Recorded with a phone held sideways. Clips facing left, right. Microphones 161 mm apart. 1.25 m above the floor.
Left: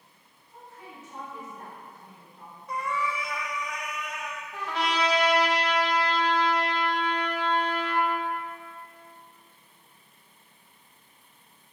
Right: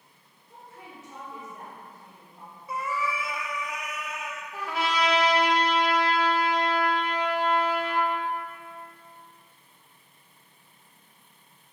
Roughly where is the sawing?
I don't hear sawing.